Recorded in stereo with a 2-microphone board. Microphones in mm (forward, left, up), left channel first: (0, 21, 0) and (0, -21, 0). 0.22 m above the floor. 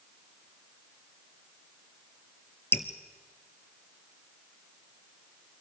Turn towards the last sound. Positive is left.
turn(degrees=70)  # may be behind; listen again after turning